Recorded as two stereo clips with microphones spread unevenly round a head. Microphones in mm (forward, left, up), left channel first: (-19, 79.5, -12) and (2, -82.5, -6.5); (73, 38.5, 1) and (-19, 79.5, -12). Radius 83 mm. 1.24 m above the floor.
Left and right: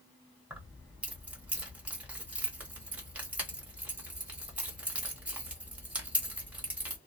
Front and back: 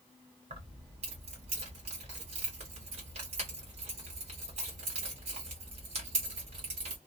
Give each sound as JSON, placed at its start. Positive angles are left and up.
{"t": 0.5, "sound": "keys jangling", "azimuth_deg": -165, "distance_m": 1.0}